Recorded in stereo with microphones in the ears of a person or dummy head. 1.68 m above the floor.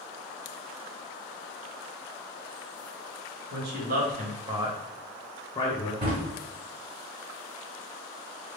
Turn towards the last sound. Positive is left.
turn(degrees=-30)  # may be behind; listen again after turning